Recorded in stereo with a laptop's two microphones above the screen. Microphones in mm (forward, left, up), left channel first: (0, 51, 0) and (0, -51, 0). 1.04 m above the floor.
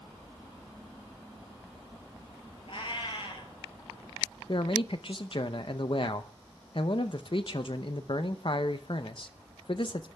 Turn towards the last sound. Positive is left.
turn(degrees=55)  # may be behind; listen again after turning